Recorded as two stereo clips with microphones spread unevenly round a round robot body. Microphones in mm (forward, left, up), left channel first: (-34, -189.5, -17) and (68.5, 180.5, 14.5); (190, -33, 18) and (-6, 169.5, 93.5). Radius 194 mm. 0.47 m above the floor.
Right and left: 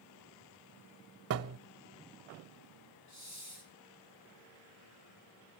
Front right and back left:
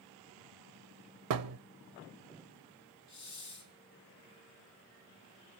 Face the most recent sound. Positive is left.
turn(degrees=-60)